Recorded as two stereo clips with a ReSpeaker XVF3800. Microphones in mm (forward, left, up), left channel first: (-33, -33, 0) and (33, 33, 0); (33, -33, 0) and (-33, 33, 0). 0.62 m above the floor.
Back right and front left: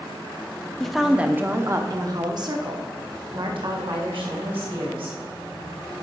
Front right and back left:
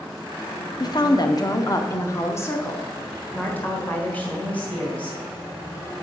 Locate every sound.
0.8 s a woman speaking: 50° right, 0.7 m; by 5.2 s 30° left, 2.5 m